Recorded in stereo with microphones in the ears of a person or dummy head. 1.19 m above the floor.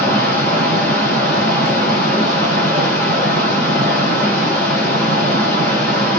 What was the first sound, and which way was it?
Running water, 5° left (ahead or behind).